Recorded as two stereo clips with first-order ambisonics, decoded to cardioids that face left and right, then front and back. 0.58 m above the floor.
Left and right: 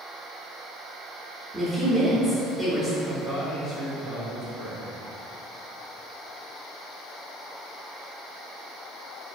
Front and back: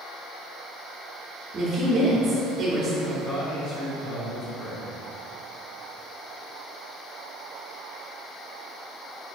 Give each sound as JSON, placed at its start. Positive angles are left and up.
{"t": 1.5, "sound": "a woman speaking", "azimuth_deg": 165, "distance_m": 0.6}
{"t": 3.0, "sound": "a man speaking", "azimuth_deg": -10, "distance_m": 1.7}